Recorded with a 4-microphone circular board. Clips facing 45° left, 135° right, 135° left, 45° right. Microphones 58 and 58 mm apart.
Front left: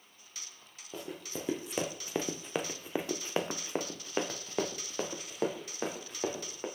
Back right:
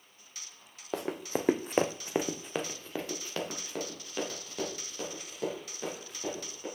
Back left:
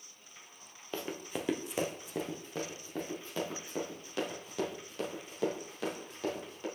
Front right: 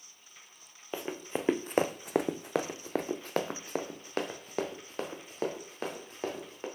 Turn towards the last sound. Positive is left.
turn(degrees=5)